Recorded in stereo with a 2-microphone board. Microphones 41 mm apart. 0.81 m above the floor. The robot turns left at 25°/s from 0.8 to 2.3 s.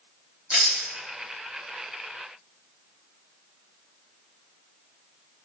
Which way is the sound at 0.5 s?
25° right (ahead or behind).